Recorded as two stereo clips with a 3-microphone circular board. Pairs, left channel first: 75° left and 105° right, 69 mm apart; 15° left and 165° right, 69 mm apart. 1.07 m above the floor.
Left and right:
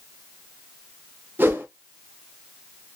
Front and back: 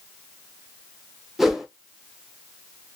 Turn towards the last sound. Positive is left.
turn(degrees=-80)